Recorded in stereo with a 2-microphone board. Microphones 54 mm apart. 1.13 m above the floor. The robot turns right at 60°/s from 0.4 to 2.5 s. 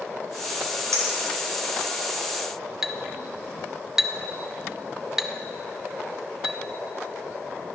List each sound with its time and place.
0.9 s a clink: 85° right, 3.5 m; by 2.0 s 25° right (ahead or behind), 3.5 m
2.8 s a clink: 10° right (ahead or behind), 0.8 m